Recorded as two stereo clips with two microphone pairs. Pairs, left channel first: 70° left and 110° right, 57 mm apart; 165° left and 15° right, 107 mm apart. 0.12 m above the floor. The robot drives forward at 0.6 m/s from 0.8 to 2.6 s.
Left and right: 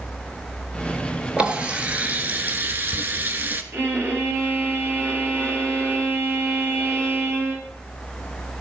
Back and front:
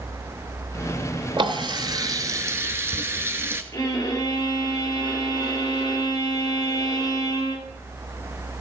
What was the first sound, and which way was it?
A running tap, 40° right.